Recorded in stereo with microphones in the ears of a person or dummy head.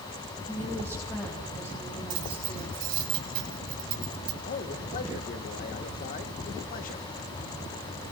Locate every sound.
0.5 s a woman speaking: 10° left (ahead or behind), 3 m; by 2.9 s 15° left (ahead or behind), 4.5 m
2.1 s keys jangling: 50° right (ahead or behind), 3.5 m
4.4 s a man speaking: 45° left (ahead or behind), 1.7 m